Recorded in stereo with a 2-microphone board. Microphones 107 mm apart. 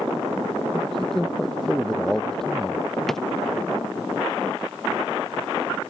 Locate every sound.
0.7 s a man speaking: 5° left (ahead or behind)
3.1 s a drawer: centre (ahead or behind)